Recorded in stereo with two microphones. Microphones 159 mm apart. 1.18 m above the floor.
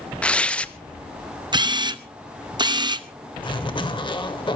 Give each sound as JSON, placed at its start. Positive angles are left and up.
{"t": 0.2, "sound": "tearing paper", "side_deg": 5, "distance_m": 0.6}
{"t": 1.5, "sound": "a camera shutter", "side_deg": -25, "distance_m": 0.7}
{"t": 3.4, "sound": "a zipper", "side_deg": 30, "distance_m": 1.5}